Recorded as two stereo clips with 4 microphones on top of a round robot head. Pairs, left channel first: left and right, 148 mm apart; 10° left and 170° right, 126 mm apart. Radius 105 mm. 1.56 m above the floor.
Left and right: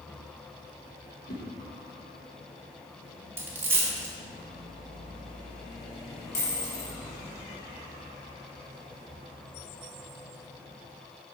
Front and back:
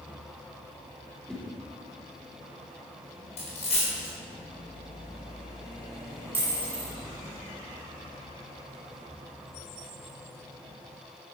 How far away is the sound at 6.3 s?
About 1.9 m.